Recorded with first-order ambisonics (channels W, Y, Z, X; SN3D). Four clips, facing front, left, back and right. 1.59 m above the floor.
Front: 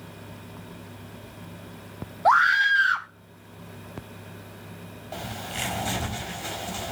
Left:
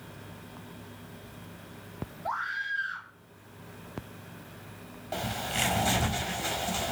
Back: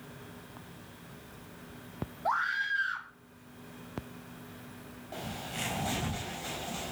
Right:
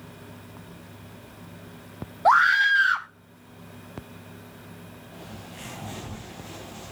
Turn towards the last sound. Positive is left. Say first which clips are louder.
# left 12 dB, front 5 dB
turn(degrees=65)